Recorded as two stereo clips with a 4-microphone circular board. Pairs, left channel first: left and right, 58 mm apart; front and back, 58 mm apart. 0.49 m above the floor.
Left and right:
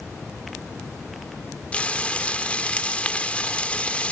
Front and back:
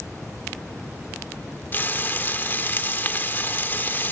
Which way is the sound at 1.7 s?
30° left.